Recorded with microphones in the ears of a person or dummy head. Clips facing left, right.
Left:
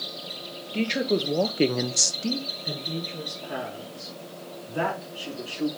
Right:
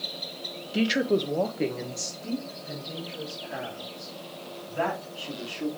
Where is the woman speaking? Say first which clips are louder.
Right 1 dB; 10° right (ahead or behind), 1.2 m; by 5.7 s 50° left (ahead or behind), 5 m.